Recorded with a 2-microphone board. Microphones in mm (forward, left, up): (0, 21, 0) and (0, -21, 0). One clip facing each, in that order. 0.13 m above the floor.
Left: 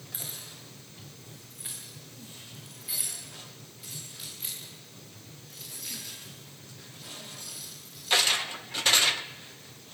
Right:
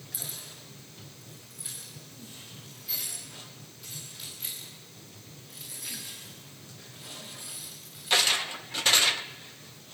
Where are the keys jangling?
40° left (ahead or behind), 9.5 m; by 8.2 s 20° right (ahead or behind), 13.5 m.